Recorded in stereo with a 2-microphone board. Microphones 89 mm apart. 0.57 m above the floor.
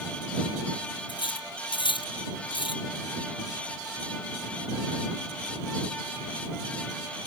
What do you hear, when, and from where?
1.1 s cutlery clinking: 65° left (ahead or behind)